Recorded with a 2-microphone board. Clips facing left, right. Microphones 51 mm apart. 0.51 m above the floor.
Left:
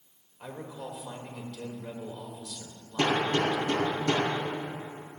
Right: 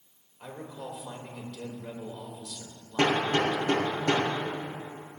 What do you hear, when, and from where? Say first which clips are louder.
0.4 s a man speaking: even; 10° left (ahead or behind), 2.5 m
3.0 s hammering: right 1 dB; 40° right (ahead or behind), 4.5 m